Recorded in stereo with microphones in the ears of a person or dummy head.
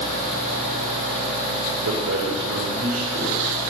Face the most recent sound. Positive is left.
turn(degrees=-80)